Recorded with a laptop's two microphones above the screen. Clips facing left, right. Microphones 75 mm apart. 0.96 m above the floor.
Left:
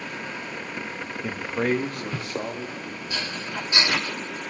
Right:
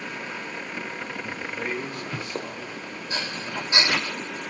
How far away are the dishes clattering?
About 4.5 m.